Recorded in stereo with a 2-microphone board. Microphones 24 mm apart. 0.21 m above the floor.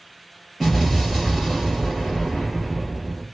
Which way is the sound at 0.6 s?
5° left (ahead or behind).